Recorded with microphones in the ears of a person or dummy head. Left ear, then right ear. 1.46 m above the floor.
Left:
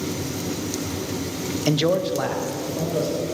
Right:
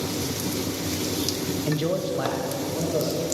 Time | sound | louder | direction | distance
1.7 | a man speaking | left 7 dB | 50° left (ahead or behind) | 0.5 m